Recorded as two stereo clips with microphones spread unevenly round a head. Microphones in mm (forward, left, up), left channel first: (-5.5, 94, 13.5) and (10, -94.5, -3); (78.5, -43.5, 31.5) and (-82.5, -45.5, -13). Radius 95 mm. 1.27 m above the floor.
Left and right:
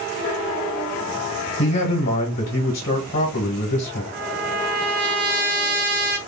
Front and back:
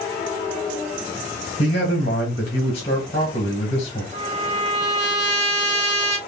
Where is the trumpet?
125° right, 1.2 m.